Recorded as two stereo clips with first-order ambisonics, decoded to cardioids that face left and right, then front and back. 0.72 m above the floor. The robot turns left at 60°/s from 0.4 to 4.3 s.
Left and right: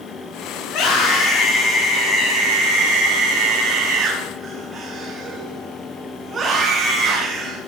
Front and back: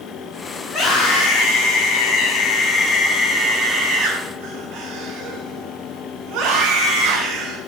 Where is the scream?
60° left, 8.5 m; by 7.6 s 155° right, 8.5 m.